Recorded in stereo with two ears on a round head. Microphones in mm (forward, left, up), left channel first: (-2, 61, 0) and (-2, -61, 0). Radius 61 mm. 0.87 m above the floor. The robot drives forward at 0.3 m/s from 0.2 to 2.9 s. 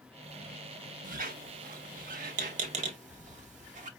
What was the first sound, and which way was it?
A squeak, 65° right (ahead or behind).